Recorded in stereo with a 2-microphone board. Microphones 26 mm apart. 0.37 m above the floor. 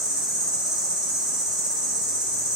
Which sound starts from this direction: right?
An insect, at 0.0 s.